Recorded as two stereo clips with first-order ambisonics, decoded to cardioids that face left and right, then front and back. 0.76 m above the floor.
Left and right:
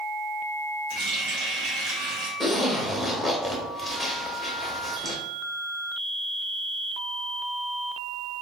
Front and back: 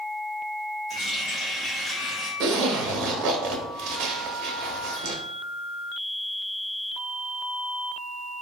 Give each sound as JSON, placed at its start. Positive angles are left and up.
{"t": 0.9, "sound": "a running tap", "azimuth_deg": -75, "distance_m": 1.8}
{"t": 2.4, "sound": "a zipper", "azimuth_deg": -175, "distance_m": 0.7}